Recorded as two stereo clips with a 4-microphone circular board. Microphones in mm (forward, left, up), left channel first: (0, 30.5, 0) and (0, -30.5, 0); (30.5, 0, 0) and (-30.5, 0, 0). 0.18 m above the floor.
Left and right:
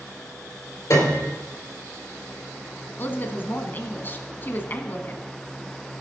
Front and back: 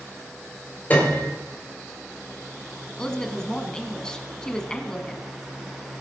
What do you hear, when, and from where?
0.9 s a piano: 60° left, 4 m
3.0 s a woman speaking: 70° left, 1.2 m